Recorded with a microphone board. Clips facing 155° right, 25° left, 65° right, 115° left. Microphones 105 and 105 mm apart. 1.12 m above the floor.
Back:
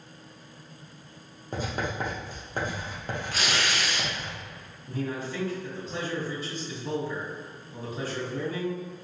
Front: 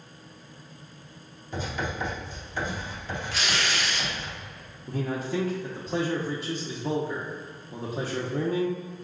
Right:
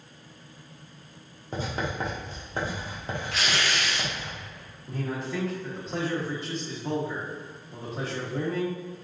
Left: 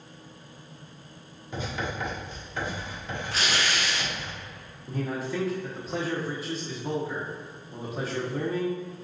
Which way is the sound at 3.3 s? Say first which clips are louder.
Even, left 1 dB; 165° left.